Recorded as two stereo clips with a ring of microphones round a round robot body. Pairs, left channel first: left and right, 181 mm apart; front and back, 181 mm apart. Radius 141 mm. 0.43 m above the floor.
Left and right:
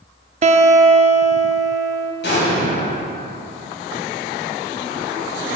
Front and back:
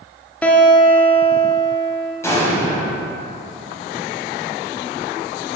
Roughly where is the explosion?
Left.